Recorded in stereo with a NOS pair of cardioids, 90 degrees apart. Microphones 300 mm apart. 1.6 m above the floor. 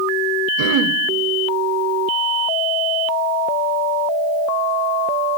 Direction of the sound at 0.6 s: 65° right.